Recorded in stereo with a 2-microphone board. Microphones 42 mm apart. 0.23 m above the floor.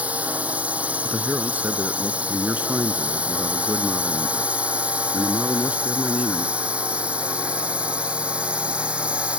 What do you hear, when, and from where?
0.0 s a drone: 40° right (ahead or behind); by 9.4 s 35° right (ahead or behind)
1.0 s a man speaking: 45° right (ahead or behind)